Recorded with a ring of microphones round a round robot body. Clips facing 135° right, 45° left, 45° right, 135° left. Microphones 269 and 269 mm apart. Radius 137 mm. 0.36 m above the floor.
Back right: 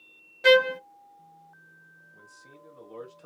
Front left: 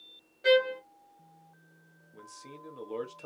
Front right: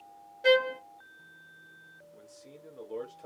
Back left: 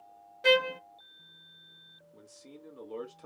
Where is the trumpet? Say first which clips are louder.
Back right 4 dB, front right 2 dB; 150° right, 0.5 m.